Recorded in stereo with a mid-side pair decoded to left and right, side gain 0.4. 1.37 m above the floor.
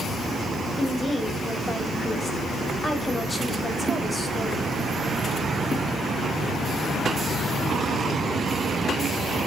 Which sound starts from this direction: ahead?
A woman speaking, at 0.8 s.